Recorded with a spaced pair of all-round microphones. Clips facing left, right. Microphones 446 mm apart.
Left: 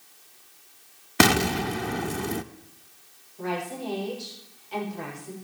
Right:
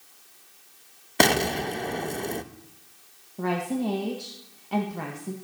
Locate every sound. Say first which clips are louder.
1.2 s an explosion: left 2 dB; 25° left (ahead or behind), 0.5 m
3.4 s a woman speaking: right 5 dB; 70° right (ahead or behind), 1.8 m